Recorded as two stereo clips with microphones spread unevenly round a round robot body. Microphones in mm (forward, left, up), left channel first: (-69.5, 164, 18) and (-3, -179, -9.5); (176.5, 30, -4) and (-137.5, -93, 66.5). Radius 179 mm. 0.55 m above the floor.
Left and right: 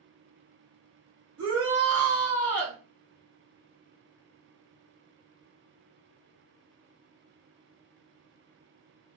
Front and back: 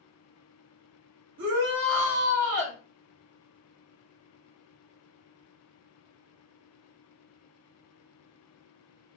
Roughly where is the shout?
Behind right.